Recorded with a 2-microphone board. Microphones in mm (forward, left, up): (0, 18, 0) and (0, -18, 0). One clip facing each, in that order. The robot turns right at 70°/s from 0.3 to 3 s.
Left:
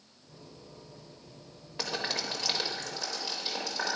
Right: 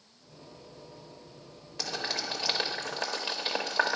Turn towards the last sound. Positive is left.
turn(degrees=-40)  # may be behind; listen again after turning